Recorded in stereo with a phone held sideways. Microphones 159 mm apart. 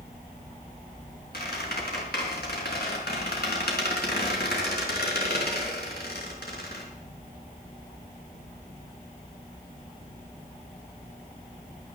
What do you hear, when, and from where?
1.3 s a squeak: 85° left, 5 m